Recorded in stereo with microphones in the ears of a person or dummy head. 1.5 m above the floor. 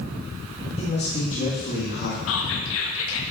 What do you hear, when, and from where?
0.8 s a man speaking: 30° left (ahead or behind), 2.5 m; by 2.2 s 50° left (ahead or behind), 2.5 m
2.3 s whispering: 75° left (ahead or behind), 1.6 m